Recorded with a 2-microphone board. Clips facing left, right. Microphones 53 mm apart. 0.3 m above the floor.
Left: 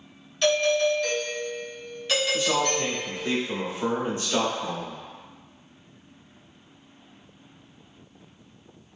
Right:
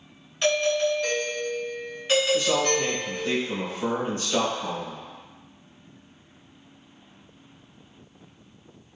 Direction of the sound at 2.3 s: 20° left (ahead or behind).